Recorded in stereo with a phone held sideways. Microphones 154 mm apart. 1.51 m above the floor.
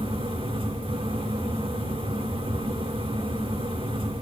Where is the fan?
35° right (ahead or behind), 2 m.